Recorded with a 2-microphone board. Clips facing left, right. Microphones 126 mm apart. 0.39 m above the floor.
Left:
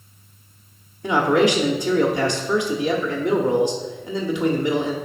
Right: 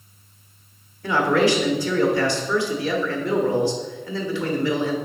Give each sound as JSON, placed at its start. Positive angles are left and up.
{"t": 1.0, "sound": "a man speaking", "side_deg": 20, "distance_m": 0.9}